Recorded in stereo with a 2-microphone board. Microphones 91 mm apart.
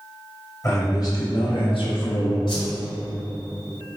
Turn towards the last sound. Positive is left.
turn(degrees=70)  # may be behind; listen again after turning